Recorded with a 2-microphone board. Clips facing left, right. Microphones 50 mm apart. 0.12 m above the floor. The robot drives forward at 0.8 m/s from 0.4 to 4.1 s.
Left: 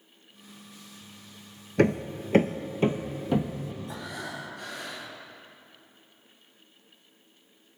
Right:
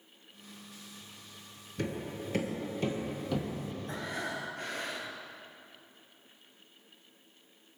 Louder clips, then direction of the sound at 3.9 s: Even; 40° right (ahead or behind).